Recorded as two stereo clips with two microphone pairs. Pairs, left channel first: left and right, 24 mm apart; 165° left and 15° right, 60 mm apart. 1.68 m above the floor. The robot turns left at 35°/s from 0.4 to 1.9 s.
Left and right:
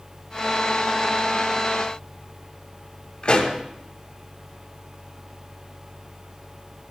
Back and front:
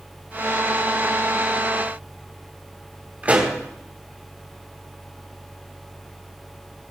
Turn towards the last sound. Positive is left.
turn(degrees=50)